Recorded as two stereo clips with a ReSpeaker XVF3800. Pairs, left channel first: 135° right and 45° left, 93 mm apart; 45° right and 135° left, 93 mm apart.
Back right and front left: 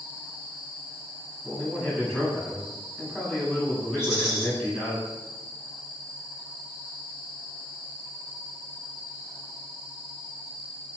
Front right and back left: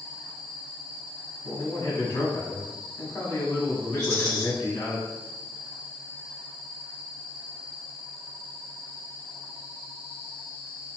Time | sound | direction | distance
1.4 | a man speaking | 55° right | 1.5 m
4.0 | a rattle | 175° left | 1.9 m